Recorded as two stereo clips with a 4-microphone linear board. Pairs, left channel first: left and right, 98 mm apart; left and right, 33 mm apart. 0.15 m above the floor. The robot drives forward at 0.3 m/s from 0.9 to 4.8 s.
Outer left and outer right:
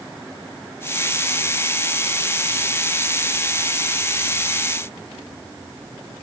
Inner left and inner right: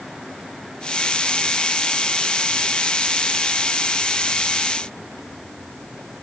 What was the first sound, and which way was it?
Only background noise.